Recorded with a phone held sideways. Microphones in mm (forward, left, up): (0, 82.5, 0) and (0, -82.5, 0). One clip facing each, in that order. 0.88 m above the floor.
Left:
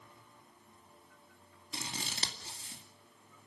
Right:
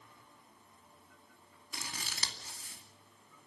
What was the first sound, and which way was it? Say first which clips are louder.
Scissors: left 4 dB; 25° left (ahead or behind).